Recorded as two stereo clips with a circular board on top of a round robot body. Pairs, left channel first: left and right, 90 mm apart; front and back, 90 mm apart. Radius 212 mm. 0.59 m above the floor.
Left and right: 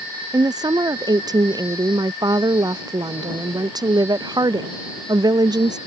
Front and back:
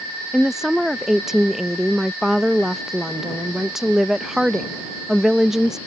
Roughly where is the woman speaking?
Right.